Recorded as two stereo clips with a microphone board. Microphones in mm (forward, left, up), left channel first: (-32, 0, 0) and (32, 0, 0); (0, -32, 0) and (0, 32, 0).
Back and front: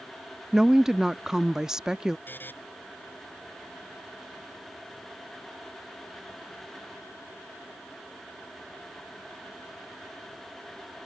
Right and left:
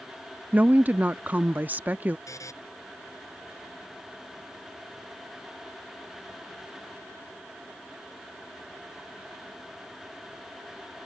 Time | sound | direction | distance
0.5 | a woman speaking | 75° left | ?
2.3 | a buzzer | 120° right | ?